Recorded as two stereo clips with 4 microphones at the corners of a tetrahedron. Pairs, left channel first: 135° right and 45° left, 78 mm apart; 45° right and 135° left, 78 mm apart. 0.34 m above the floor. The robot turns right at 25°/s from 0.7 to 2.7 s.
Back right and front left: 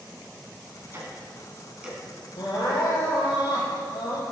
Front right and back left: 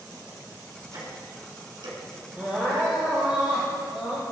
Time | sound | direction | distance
0.9 | ticking | 100° left | 2.5 m
2.4 | crying | 155° right | 4 m